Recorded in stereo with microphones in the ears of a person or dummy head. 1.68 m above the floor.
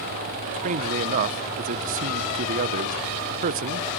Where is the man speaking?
40° right (ahead or behind), 1.0 m.